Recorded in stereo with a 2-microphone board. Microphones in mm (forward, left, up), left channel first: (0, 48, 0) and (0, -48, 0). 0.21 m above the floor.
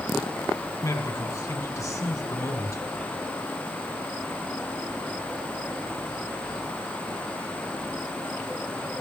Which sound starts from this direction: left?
A man speaking, at 0.8 s.